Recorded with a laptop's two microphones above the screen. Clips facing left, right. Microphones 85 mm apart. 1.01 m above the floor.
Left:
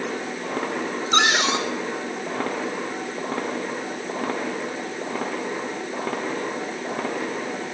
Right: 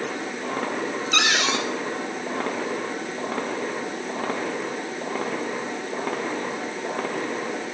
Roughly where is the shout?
I don't hear a shout.